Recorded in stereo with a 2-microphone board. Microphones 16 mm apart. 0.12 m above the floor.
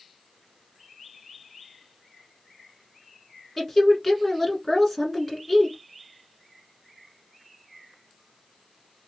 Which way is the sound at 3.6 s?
5° left (ahead or behind).